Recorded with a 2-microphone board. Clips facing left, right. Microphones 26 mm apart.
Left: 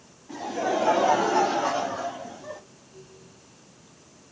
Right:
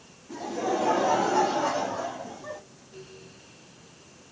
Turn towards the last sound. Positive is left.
turn(degrees=-5)  # may be behind; listen again after turning